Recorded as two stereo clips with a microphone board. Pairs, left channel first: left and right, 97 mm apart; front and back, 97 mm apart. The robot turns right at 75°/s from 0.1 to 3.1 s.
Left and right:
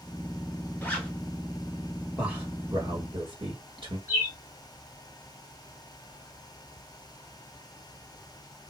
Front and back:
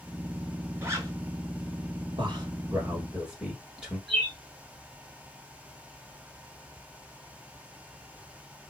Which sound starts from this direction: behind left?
A zipper, at 0.8 s.